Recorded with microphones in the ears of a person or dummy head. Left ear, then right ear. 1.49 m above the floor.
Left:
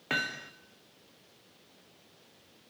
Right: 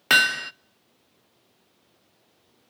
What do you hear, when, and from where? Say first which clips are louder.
0.1 s hammering: right 14 dB; 60° right (ahead or behind), 0.5 m